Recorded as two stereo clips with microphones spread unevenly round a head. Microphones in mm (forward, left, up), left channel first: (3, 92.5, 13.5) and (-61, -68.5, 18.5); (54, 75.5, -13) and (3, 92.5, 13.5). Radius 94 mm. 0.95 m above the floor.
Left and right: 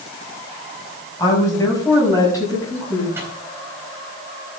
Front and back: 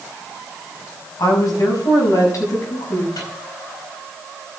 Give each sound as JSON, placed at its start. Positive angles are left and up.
{"t": 1.2, "sound": "a woman speaking", "azimuth_deg": -5, "distance_m": 6.0}
{"t": 3.1, "sound": "a microwave", "azimuth_deg": -35, "distance_m": 4.0}